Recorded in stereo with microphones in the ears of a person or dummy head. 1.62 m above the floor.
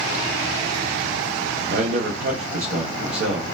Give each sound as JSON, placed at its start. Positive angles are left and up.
{"t": 1.7, "sound": "a man speaking", "side_deg": -55, "distance_m": 0.9}